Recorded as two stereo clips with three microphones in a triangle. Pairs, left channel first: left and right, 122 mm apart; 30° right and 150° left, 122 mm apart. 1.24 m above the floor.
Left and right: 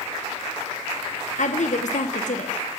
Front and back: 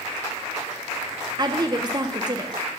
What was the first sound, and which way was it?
A woman speaking, 95° left.